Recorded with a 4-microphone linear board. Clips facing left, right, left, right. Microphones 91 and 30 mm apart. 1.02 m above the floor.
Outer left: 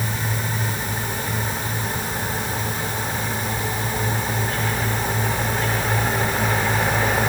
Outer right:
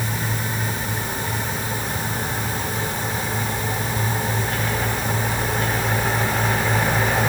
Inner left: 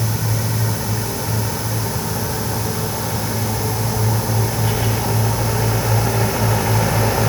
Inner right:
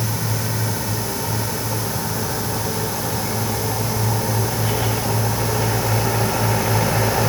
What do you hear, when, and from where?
Only background noise.